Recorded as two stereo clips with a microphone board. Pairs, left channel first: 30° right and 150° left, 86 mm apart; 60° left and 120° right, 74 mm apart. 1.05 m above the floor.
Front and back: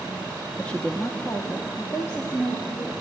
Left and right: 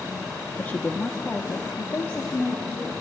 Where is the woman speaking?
35° left, 0.5 m; by 2.9 s 15° left, 1.6 m.